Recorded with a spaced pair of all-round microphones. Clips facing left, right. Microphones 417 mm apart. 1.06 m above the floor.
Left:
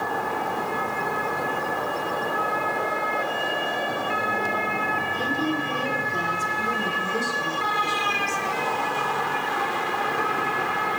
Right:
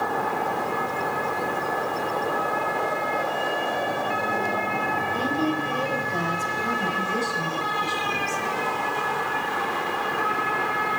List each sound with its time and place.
5.1 s a woman speaking: 65° right (ahead or behind), 5 m; by 8.4 s 70° right (ahead or behind), 8.5 m